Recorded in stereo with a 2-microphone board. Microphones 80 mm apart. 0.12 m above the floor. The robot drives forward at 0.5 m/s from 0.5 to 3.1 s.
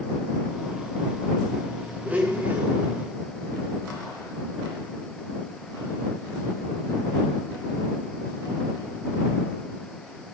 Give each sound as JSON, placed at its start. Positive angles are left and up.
{"t": 2.0, "sound": "a blender", "side_deg": -20, "distance_m": 4.0}